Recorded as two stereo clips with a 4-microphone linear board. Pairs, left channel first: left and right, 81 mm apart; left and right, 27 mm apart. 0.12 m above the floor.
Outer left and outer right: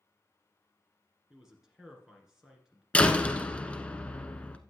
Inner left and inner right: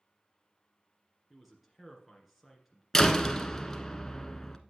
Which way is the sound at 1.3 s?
5° right (ahead or behind).